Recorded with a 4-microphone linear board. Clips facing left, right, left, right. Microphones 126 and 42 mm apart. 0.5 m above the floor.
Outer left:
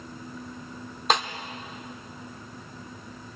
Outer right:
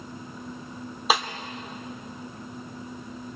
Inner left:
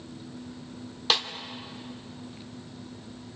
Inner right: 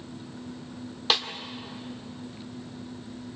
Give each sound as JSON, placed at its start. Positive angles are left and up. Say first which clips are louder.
{"t": 1.1, "sound": "a snare drum", "louder": "even, even", "side_deg": -5, "distance_m": 1.5}